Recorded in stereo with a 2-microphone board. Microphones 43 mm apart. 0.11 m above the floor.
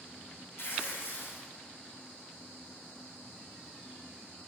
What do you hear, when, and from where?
0.6 s tearing paper: 65° left (ahead or behind), 5 m